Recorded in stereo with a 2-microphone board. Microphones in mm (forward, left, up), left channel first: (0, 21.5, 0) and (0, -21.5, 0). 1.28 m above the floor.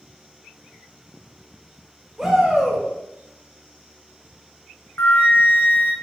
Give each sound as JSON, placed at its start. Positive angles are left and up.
{"t": 2.2, "sound": "a shout", "side_deg": -5, "distance_m": 1.4}
{"t": 5.0, "sound": "a flute", "side_deg": 65, "distance_m": 0.7}